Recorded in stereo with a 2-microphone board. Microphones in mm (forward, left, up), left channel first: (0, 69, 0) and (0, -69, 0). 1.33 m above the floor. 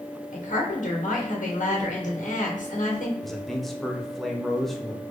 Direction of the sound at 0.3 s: 65° left (ahead or behind).